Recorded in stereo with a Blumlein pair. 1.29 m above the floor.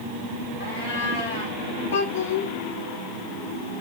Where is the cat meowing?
65° left, 7.5 m.